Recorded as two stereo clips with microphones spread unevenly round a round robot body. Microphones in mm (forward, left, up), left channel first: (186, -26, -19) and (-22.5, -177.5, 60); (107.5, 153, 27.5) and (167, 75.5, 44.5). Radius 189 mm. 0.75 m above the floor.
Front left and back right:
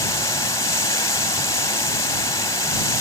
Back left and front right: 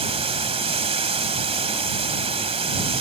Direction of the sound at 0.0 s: 40° right.